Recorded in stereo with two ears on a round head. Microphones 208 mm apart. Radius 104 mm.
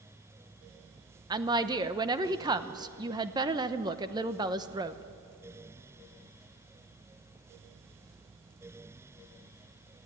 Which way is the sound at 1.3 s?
20° right (ahead or behind).